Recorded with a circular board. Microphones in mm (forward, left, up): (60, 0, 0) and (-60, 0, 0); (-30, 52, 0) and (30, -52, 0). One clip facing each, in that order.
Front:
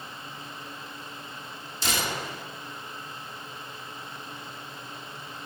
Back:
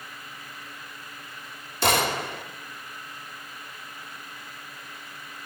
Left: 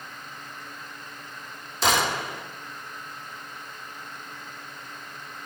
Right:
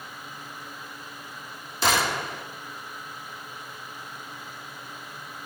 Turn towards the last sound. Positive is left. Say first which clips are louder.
# back 7 dB, left 1 dB
turn(degrees=-150)